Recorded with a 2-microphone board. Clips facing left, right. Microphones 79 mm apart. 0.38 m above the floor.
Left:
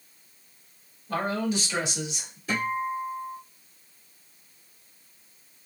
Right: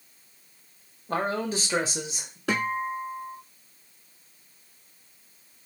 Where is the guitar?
85° right, 1.1 m.